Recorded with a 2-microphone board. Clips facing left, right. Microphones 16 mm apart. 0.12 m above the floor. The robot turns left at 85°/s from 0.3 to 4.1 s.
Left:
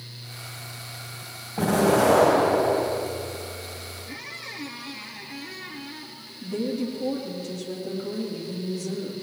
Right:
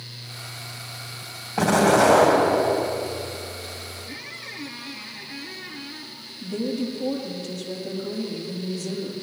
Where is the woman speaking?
25° right (ahead or behind), 3.5 m.